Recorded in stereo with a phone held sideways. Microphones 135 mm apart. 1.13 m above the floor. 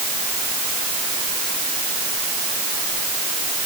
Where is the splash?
No splash in this recording.